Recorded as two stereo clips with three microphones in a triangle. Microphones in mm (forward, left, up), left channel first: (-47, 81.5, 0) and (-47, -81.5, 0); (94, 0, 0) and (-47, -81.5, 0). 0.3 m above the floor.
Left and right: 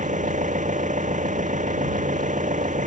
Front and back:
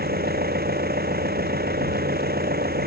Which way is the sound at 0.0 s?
130° right.